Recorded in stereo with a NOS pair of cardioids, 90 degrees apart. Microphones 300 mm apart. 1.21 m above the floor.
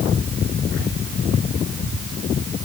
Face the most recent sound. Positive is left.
No sound to turn to.